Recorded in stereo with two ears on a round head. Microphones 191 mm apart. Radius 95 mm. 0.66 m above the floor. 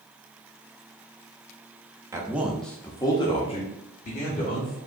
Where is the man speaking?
15° right (ahead or behind), 0.7 m; by 4.8 s 40° left (ahead or behind), 1.3 m.